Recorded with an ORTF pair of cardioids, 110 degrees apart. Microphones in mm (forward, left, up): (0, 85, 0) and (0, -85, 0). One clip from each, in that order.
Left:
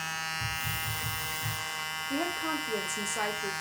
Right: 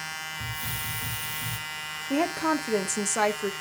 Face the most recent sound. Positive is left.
turn(degrees=-45)